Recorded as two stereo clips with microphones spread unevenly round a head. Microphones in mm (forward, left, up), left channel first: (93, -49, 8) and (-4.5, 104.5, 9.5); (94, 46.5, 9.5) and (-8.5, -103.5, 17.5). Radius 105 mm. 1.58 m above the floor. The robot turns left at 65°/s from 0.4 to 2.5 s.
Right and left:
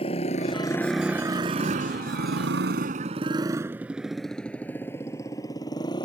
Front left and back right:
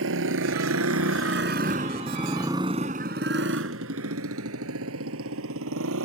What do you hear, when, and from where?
0.0 s a motorcycle: 125° right; by 6.1 s 130° right